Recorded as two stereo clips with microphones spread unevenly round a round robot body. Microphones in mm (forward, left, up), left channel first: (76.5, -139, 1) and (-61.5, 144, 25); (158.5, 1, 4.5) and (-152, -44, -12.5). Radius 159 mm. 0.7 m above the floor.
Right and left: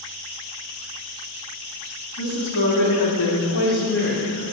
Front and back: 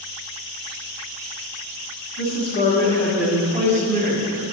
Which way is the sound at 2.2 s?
35° right.